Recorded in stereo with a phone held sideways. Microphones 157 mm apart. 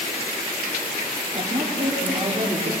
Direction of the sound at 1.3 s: 35° right (ahead or behind).